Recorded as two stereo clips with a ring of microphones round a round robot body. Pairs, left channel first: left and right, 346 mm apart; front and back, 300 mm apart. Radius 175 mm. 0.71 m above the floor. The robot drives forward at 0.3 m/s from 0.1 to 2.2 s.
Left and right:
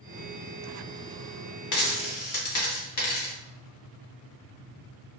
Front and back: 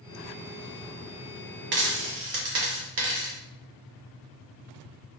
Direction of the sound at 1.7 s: 125° left.